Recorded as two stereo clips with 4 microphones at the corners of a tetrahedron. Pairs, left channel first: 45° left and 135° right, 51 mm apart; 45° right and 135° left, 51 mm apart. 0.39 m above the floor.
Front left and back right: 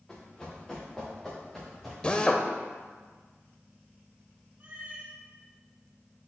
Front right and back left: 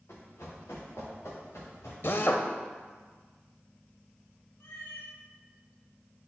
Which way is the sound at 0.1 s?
30° right.